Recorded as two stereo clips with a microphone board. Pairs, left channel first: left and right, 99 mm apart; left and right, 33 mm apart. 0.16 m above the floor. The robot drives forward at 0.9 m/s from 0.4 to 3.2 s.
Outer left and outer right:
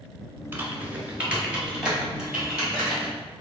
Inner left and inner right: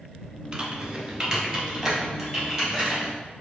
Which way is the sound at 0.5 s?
25° right (ahead or behind).